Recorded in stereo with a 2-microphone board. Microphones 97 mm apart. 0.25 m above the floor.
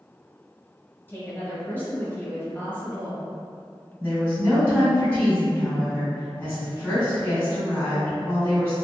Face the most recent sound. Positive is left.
turn(degrees=15)  # may be behind; listen again after turning